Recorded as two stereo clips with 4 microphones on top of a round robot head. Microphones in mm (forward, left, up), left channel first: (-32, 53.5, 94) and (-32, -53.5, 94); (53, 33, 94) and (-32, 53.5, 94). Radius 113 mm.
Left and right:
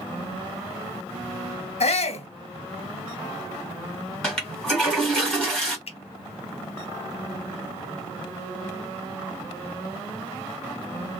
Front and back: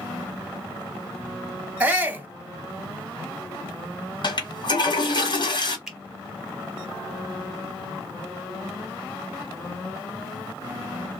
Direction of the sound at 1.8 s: 95° left.